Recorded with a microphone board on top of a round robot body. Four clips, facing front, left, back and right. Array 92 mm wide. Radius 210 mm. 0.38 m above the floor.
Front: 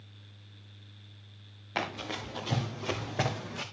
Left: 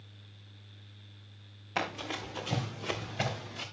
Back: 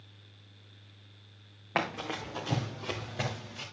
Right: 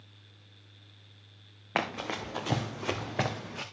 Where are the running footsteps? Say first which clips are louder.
Right 3 dB, back 2 dB; 125° right, 2.5 m; by 3.6 s 50° right, 2 m.